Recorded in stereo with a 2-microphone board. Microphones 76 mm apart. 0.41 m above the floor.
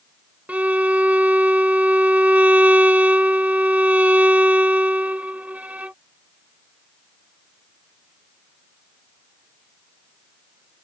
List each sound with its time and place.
0.5 s a violin: 20° right (ahead or behind)